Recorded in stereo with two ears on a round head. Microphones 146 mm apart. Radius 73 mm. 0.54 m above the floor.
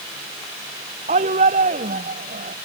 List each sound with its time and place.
1.1 s a shout: 45° right (ahead or behind); by 2.5 s 50° right (ahead or behind)